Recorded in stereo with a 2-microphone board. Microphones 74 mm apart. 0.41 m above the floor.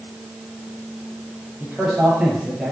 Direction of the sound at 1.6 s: 10° right (ahead or behind).